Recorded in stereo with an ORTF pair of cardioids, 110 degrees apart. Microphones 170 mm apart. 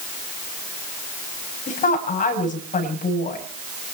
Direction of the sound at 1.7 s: 50° left.